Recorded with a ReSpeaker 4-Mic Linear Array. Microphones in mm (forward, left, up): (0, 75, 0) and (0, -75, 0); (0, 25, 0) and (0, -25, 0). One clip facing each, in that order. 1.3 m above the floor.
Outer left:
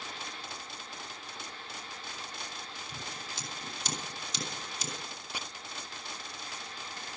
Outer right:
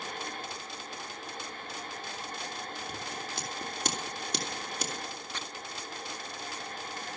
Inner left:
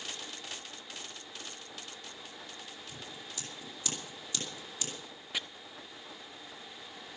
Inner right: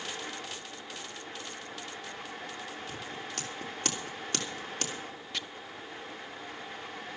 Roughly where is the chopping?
Centre.